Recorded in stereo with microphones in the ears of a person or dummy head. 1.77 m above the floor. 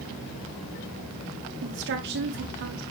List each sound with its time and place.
1.6 s a woman speaking: 70° right (ahead or behind), 1.6 m; by 2.8 s 55° right (ahead or behind), 2 m